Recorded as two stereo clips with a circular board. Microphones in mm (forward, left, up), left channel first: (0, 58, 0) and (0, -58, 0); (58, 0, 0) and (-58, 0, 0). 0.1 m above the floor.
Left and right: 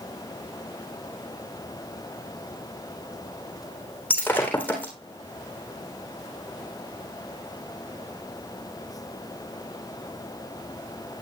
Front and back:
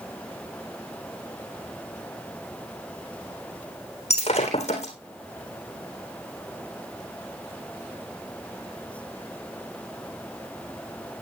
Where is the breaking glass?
15° left, 3.5 m.